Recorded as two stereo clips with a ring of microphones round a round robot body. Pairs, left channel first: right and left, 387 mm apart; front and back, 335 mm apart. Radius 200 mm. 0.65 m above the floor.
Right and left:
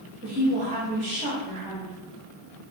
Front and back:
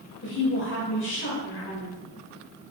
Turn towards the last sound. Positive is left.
turn(degrees=30)